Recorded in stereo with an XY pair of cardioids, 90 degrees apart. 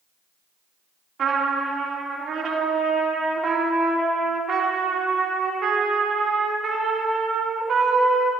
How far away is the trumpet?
About 3 m.